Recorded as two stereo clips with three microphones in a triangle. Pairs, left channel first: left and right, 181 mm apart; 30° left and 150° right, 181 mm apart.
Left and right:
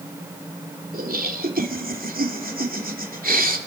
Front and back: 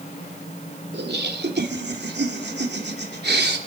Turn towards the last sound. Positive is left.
turn(degrees=-130)